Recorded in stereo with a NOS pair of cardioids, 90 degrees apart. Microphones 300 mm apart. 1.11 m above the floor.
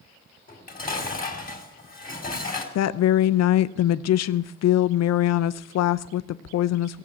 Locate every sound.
0.5 s dishes clattering: 25° left, 3.5 m
2.8 s a woman speaking: 60° left, 0.6 m